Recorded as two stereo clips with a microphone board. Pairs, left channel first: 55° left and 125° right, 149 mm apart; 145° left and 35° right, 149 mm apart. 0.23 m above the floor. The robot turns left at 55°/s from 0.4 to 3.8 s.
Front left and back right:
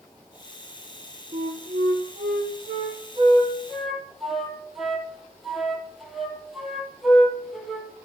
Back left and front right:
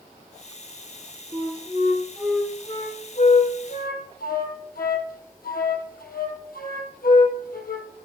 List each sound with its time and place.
1.3 s a flute: 75° right, 2 m; by 7.9 s 145° left, 2 m